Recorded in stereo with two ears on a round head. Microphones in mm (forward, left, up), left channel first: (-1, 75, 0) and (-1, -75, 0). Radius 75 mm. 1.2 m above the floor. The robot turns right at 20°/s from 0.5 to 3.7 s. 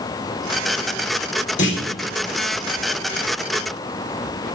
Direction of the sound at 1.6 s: 80° left.